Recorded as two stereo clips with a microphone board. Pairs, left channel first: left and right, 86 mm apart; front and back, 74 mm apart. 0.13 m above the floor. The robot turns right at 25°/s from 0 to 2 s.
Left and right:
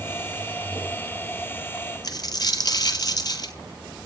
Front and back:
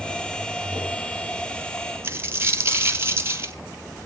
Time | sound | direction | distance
2.0 | a dropped coin | 125° left | 1.5 m